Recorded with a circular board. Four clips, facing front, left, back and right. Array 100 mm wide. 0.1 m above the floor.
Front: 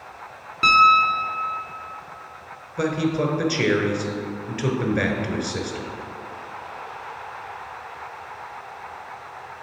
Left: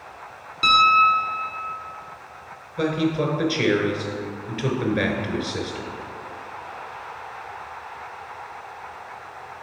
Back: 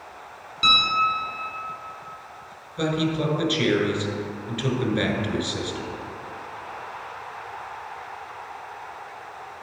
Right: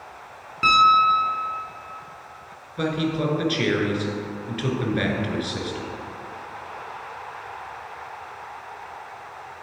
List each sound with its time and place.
0.6 s a piano: 35° right, 1.2 m
2.8 s a man speaking: 15° left, 1.1 m